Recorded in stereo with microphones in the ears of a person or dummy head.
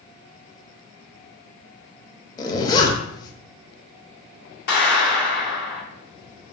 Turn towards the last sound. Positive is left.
turn(degrees=50)  # may be behind; listen again after turning